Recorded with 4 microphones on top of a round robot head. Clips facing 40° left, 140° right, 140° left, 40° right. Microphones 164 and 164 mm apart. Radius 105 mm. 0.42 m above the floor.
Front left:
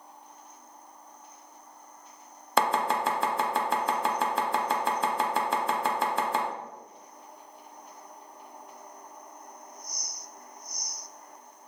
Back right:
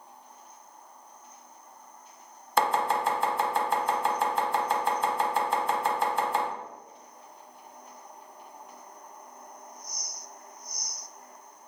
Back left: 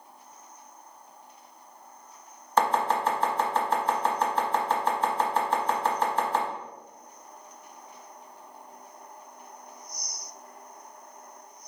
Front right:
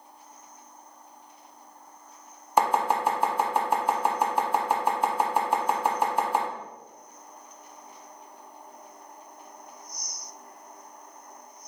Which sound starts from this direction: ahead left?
Chopping, at 2.6 s.